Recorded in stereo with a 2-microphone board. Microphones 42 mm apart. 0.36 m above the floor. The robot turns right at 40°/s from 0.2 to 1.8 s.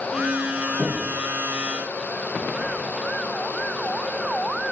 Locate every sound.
0.8 s knocking: 50° right (ahead or behind), 3 m; by 1.1 s 40° right (ahead or behind), 3 m